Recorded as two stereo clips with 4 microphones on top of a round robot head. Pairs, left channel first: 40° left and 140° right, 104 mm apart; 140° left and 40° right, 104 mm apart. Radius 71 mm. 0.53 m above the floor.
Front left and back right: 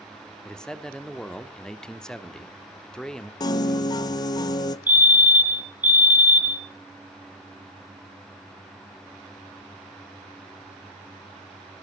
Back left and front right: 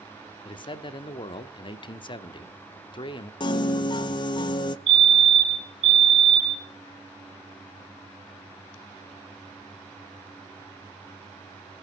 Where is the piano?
95° left, 0.6 m.